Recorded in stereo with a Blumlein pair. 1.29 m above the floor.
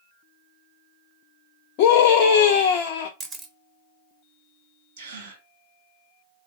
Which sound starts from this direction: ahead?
A camera shutter, at 3.2 s.